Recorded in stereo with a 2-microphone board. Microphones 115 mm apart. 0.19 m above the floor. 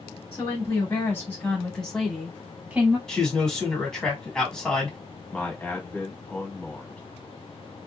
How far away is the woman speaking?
About 1.4 m.